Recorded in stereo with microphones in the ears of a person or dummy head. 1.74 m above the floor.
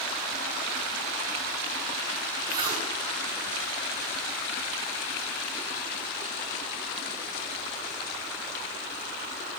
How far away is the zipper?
About 7.5 m.